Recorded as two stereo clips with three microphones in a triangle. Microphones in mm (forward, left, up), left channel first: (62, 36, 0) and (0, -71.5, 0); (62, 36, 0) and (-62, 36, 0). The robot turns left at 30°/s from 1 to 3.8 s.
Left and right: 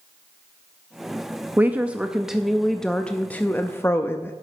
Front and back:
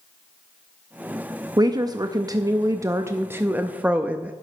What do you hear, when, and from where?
1.6 s a woman speaking: straight behind, 0.5 m; by 4.3 s 110° left, 0.5 m